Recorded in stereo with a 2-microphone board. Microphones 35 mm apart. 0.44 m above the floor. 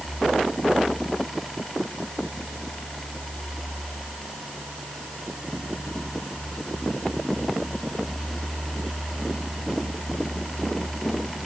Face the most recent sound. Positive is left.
No sound to turn to.